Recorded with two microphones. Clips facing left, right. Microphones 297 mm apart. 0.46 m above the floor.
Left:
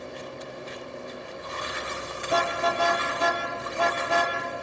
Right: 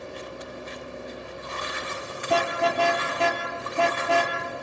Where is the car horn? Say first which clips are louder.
Right 2 dB; 90° right, 4.5 m.